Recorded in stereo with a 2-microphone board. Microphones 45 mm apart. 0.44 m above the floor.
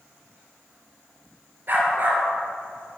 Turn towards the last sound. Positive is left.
turn(degrees=-45)  # may be behind; listen again after turning